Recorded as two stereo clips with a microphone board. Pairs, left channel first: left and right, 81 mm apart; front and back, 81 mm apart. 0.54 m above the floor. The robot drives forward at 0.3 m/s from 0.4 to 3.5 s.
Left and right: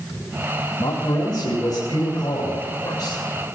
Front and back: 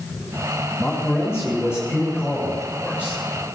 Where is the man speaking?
95° left, 4 m; by 3.2 s 105° left, 4.5 m.